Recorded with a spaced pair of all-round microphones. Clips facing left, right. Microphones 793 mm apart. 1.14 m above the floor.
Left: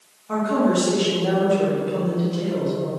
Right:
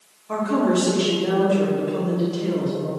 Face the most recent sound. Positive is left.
turn(degrees=25)  # may be behind; listen again after turning